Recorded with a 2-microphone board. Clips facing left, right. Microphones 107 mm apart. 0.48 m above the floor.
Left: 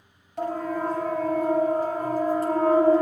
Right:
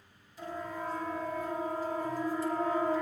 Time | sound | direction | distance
0.4 | a siren | 70° left (ahead or behind) | 4.5 m